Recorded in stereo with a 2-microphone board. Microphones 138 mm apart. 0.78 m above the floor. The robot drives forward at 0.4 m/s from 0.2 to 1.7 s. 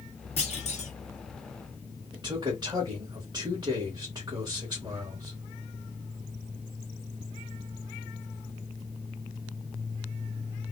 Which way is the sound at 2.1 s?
30° right (ahead or behind).